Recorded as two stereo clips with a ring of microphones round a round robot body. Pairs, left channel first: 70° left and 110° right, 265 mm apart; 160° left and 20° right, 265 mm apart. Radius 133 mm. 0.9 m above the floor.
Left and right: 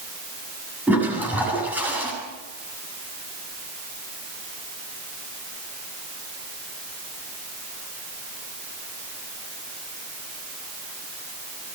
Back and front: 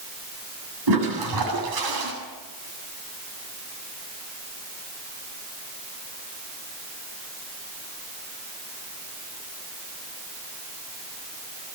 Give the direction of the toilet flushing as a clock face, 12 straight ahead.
1 o'clock.